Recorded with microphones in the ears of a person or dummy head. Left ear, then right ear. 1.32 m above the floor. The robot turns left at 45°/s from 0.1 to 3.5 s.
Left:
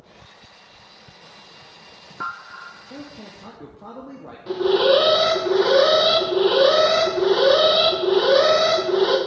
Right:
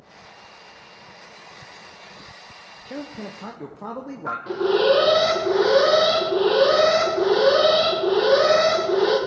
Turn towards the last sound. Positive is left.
turn(degrees=10)  # may be behind; listen again after turning